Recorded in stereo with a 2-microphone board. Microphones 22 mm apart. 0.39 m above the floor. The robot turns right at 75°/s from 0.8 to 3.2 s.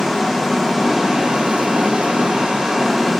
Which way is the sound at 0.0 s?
170° right.